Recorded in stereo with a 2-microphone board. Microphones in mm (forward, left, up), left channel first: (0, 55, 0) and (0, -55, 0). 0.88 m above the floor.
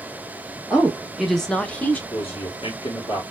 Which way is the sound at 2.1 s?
50° left (ahead or behind).